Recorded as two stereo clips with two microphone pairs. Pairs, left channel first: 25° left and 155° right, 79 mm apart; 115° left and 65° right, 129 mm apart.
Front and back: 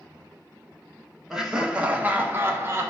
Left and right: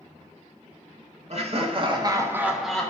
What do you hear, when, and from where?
1.3 s laughter: 75° right, 1.7 m; by 2.9 s 170° right, 1.2 m